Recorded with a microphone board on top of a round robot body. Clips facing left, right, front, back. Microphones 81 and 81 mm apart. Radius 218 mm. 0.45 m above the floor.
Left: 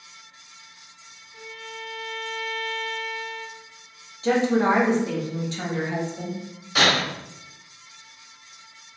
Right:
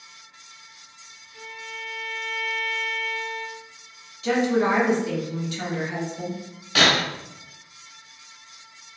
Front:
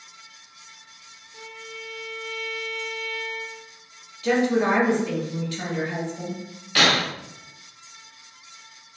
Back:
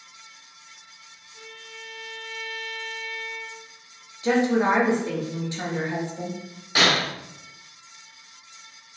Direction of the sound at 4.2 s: 125° left.